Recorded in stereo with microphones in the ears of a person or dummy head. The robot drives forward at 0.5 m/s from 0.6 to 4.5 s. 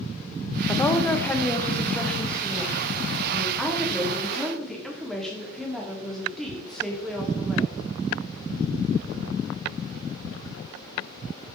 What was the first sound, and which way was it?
A woman speaking, 15° left (ahead or behind).